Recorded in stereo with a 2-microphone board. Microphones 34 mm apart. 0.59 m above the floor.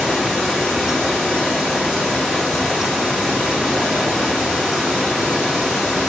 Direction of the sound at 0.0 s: Centre (ahead or behind).